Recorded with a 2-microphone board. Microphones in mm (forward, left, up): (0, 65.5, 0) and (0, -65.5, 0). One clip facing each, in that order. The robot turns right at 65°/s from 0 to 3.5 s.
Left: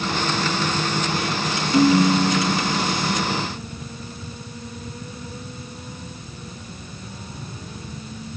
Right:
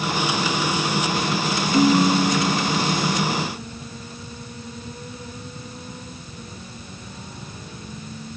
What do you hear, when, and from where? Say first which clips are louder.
1.7 s a ringtone: left 1 dB; 140° left, 1.8 m; by 3.1 s 130° right, 1.8 m